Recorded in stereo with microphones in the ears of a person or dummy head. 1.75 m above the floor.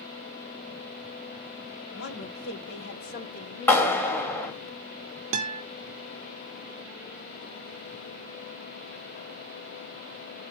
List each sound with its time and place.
1.9 s a woman speaking: 85° left, 2.5 m; by 4.7 s 10° left (ahead or behind), 2.0 m
3.7 s a clap: 10° left (ahead or behind), 4.5 m
5.3 s a guitar: 40° right (ahead or behind), 1.1 m